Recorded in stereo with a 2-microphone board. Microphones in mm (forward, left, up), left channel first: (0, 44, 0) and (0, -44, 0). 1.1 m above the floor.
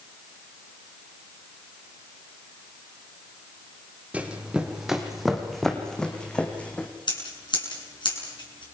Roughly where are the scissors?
Left.